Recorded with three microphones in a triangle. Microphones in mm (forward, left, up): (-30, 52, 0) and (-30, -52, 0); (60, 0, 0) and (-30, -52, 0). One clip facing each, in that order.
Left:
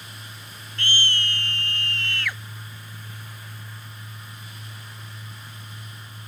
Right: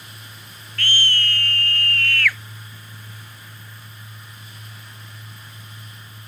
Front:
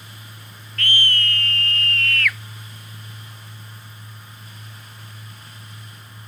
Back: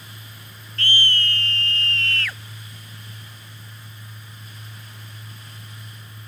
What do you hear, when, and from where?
0.8 s a scream: 155° left